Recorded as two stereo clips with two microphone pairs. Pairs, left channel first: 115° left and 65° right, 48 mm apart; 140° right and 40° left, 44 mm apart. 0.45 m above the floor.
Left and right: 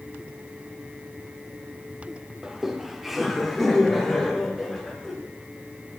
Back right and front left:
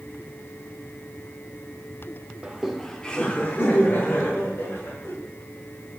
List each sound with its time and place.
2.4 s laughter: 5° left, 0.7 m; by 5.1 s 160° right, 1.7 m